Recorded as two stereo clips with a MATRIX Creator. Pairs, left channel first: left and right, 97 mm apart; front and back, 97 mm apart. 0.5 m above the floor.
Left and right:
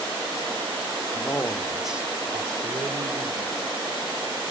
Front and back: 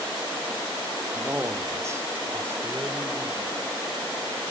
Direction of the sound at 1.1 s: 120° left.